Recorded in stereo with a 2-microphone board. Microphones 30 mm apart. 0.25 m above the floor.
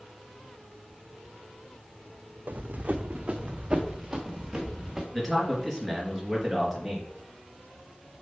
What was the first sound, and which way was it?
Running footsteps, 70° right (ahead or behind).